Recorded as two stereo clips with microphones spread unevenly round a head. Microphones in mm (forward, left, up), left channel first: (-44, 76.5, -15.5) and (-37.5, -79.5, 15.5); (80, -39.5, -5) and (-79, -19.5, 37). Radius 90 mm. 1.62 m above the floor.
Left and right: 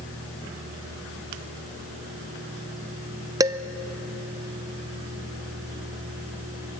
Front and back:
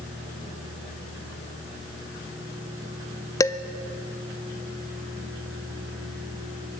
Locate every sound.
3.4 s dishes clattering: 90° right, 0.6 m